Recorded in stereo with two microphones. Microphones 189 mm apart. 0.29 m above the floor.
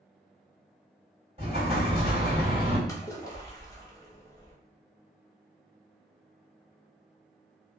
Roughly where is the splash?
Centre.